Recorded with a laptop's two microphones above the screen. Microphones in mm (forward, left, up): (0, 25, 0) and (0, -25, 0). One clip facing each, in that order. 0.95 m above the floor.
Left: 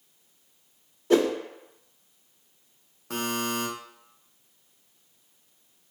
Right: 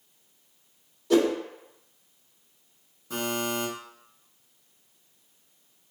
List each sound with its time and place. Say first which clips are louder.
1.1 s a whoosh: even; 30° left (ahead or behind), 0.8 m
3.1 s a buzzer: even; 60° left (ahead or behind), 0.7 m